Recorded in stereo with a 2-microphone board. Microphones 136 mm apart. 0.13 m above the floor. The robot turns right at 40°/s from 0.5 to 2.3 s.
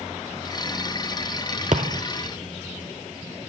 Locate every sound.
1.7 s a thud: 70° right (ahead or behind), 1.0 m; by 2.0 s 60° right (ahead or behind), 1.0 m